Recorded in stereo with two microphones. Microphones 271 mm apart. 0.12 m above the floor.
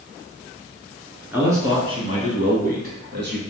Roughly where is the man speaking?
Centre.